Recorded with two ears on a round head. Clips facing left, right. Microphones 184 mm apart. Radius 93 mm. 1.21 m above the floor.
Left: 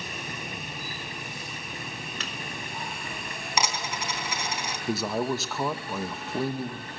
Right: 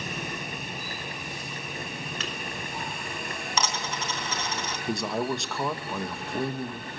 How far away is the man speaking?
About 1.2 m.